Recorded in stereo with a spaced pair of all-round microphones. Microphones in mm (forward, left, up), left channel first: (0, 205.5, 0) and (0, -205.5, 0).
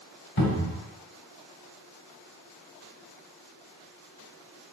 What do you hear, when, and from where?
0.4 s a cupboard door: 40° left (ahead or behind), 1.7 m